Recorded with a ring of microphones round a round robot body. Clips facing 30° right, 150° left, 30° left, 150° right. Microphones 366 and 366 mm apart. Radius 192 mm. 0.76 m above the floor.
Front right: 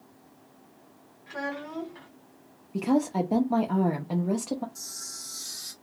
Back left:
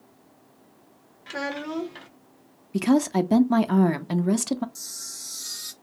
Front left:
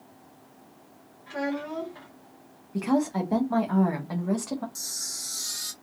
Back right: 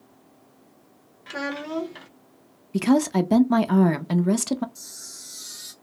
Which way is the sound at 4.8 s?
85° left.